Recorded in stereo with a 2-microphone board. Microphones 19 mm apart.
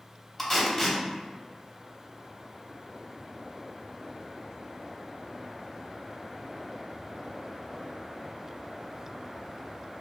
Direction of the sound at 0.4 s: 15° left (ahead or behind).